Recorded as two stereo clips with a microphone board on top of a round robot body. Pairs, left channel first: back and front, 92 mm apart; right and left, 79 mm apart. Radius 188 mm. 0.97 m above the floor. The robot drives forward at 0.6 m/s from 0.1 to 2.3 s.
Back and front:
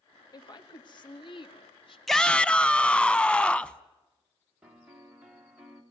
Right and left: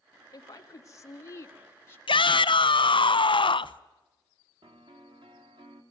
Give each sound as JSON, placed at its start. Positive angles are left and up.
{"t": 0.3, "sound": "a woman speaking", "azimuth_deg": -135, "distance_m": 1.5}
{"t": 2.1, "sound": "a shout", "azimuth_deg": -90, "distance_m": 0.9}
{"t": 4.6, "sound": "a piano", "azimuth_deg": 80, "distance_m": 2.5}